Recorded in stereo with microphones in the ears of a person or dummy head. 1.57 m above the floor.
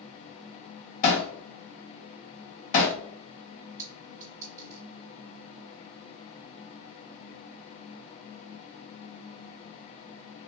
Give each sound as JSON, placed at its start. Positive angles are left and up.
{"t": 1.0, "sound": "hammering", "side_deg": 40, "distance_m": 0.8}
{"t": 3.8, "sound": "a clink", "side_deg": -20, "distance_m": 0.7}